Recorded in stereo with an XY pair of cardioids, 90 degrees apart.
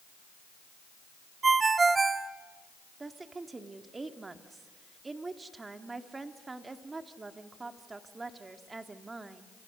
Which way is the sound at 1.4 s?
35° right.